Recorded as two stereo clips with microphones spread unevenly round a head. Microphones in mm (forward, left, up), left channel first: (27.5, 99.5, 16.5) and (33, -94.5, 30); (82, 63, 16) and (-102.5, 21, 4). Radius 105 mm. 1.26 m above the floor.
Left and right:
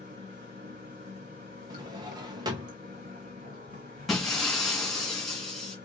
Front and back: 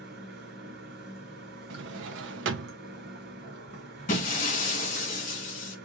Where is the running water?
135° right, 1.8 m.